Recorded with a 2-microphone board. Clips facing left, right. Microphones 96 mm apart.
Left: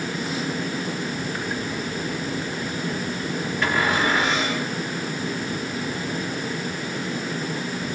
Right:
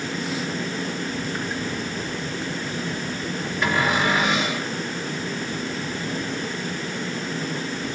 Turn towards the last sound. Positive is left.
turn(degrees=-15)  # may be behind; listen again after turning